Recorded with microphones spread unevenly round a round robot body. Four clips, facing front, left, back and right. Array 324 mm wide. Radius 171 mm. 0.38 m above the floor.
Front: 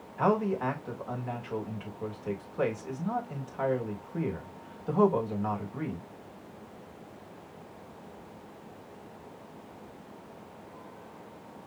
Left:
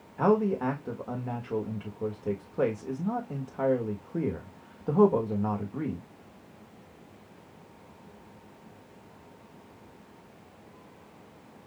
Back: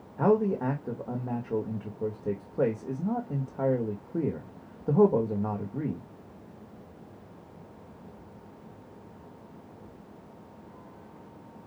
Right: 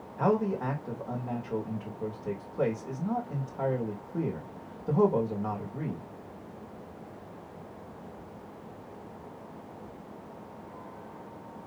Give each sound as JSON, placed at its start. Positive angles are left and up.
{"t": 0.2, "sound": "a man speaking", "azimuth_deg": 150, "distance_m": 1.5}